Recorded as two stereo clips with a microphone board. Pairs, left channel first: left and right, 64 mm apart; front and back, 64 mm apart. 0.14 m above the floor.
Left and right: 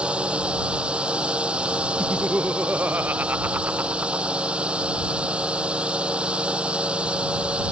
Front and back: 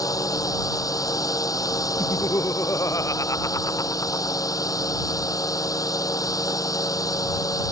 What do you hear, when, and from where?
0.0 s a drone: 15° right
2.0 s laughter: 30° right